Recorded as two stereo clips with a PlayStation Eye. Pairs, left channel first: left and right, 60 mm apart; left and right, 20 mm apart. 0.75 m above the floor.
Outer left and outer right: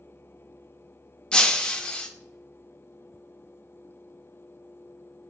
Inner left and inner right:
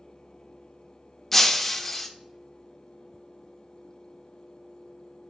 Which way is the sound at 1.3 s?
15° left (ahead or behind).